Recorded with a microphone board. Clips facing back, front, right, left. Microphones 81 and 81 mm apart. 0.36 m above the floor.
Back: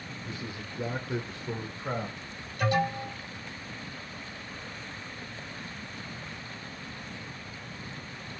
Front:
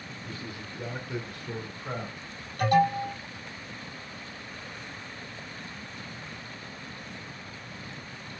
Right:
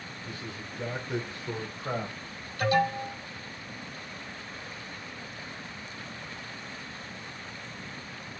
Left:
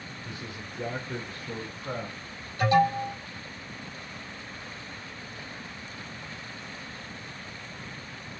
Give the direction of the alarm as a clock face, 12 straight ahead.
11 o'clock.